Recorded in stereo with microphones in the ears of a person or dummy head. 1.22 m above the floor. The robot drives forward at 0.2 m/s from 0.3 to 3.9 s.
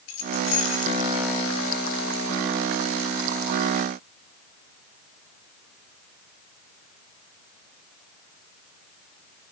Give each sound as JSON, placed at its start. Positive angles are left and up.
{"t": 0.1, "sound": "keys jangling", "side_deg": 80, "distance_m": 3.0}